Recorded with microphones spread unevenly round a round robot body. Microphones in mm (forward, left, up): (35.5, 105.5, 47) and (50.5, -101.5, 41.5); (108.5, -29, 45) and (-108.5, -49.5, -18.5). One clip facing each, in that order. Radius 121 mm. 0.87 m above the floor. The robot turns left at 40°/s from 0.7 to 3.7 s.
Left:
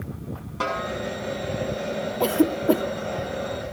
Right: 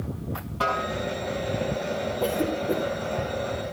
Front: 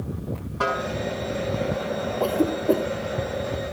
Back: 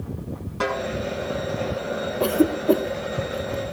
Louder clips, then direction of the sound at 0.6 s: Even, back 2 dB; 135° left.